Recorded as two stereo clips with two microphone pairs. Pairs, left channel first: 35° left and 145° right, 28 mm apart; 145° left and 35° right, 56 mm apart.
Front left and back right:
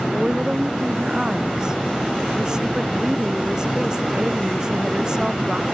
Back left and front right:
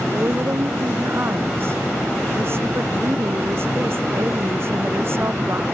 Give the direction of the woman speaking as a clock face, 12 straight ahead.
3 o'clock.